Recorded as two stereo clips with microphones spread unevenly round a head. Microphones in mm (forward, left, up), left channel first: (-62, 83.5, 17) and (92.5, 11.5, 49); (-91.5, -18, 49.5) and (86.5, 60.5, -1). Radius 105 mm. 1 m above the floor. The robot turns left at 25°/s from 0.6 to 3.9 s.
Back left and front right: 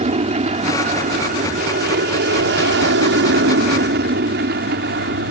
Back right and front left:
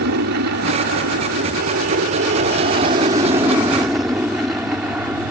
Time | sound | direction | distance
0.0 | an aircraft | 25° left | ?